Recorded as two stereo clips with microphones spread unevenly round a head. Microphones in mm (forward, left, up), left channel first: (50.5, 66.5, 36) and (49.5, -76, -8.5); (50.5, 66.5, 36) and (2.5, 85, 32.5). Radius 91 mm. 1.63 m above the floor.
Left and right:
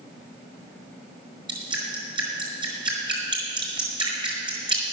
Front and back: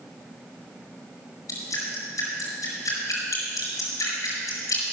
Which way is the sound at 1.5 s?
30° right.